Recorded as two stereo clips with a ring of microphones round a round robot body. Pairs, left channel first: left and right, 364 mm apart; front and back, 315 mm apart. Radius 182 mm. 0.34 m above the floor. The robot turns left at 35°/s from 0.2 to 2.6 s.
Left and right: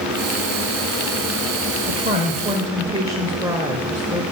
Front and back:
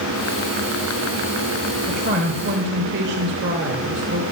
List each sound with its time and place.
1.9 s a woman speaking: 135° right, 0.9 m; by 4.2 s 165° right, 0.9 m